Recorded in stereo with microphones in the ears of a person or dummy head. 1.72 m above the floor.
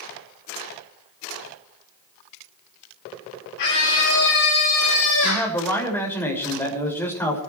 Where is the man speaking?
15° left (ahead or behind), 7 m.